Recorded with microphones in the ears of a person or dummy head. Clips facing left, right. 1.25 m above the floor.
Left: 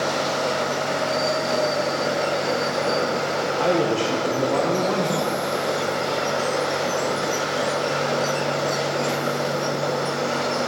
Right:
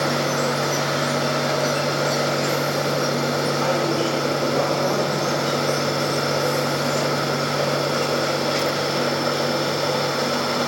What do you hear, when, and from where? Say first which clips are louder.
3.6 s a man speaking: left 4 dB; 65° left (ahead or behind), 1.0 m